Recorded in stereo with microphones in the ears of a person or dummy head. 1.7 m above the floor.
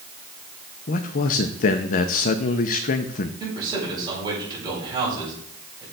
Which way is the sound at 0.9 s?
40° left (ahead or behind).